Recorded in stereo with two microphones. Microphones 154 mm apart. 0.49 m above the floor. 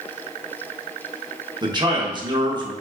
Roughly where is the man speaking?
Right.